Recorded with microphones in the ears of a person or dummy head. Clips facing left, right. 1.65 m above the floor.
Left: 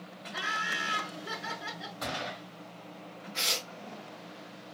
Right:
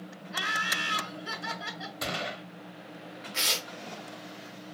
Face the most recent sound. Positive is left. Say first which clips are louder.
# right 1 dB
turn(degrees=-50)  # may be behind; listen again after turning